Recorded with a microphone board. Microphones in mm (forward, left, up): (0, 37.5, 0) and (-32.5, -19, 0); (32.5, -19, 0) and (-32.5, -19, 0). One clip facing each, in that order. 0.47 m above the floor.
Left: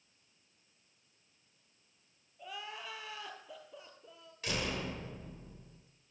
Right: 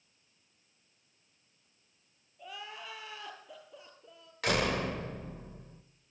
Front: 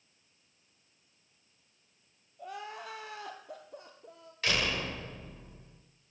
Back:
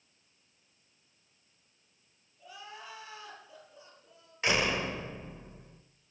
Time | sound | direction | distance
2.4 | crying | 30° right | 2 m
4.4 | a door slam | 115° right | 1.2 m